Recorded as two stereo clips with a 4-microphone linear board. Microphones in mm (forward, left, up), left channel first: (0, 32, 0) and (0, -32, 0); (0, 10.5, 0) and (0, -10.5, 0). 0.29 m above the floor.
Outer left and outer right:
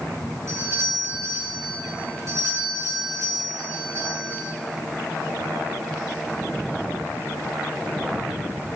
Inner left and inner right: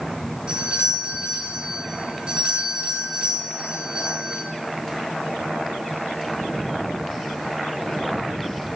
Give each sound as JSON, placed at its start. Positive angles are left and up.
{"t": 0.5, "sound": "a doorbell", "side_deg": -55, "distance_m": 4.5}